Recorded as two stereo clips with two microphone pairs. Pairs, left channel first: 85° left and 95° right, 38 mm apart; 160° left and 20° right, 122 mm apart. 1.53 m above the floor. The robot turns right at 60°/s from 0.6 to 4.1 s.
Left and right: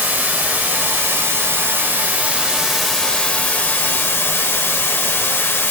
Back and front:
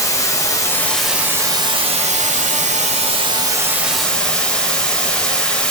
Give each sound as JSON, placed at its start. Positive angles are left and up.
{"t": 0.0, "sound": "running water", "azimuth_deg": -135, "distance_m": 0.8}